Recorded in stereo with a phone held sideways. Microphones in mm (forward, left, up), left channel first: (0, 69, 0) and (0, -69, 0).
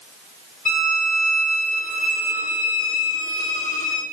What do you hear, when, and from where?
0.7 s a violin: 85° left, 2.5 m